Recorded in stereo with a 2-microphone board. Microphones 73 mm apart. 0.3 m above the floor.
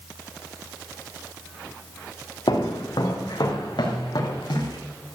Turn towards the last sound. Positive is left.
turn(degrees=85)